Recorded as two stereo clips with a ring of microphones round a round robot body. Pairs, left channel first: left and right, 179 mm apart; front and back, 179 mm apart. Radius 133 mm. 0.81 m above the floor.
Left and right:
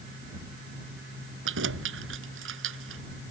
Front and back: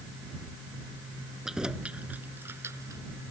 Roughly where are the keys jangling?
Right.